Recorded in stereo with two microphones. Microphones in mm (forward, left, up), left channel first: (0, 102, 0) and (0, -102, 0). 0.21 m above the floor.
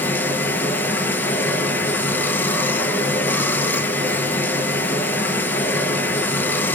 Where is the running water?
10° left (ahead or behind), 0.7 m.